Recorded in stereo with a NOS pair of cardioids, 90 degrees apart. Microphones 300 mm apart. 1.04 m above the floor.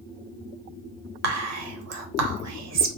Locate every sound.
1.2 s whispering: 60° right, 1.0 m